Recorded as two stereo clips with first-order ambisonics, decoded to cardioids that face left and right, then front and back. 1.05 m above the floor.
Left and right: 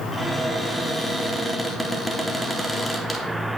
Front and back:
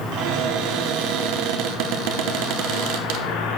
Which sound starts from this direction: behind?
A cupboard door, at 0.1 s.